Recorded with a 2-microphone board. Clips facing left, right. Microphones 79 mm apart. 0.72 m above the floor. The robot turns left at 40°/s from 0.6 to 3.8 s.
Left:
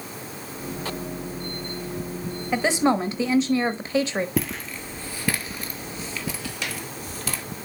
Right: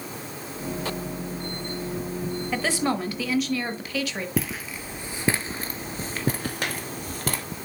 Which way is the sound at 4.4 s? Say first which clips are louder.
Left 1 dB; centre (ahead or behind).